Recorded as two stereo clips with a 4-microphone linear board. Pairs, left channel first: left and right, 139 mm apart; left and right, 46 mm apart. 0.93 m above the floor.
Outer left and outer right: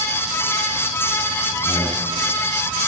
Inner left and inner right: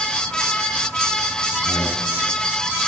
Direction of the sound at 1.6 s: 15° right (ahead or behind).